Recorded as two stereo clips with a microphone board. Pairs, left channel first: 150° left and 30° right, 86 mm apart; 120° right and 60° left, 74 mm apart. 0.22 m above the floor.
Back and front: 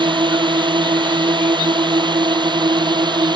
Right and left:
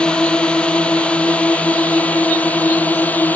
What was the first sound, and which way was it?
A drone, 40° right.